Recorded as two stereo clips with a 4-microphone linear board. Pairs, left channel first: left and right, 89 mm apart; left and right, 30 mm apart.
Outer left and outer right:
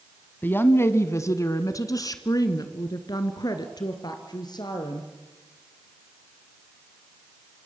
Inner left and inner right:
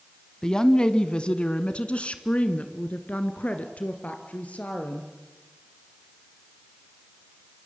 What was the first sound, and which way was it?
A woman speaking, 20° left (ahead or behind).